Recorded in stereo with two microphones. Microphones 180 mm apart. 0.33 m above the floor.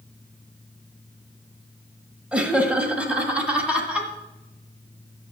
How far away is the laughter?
About 1.3 m.